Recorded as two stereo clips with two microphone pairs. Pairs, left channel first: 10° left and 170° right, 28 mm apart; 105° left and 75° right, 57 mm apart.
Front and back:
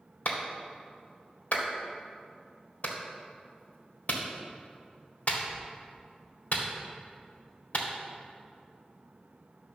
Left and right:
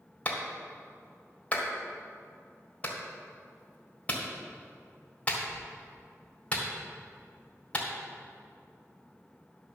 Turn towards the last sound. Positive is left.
turn(degrees=40)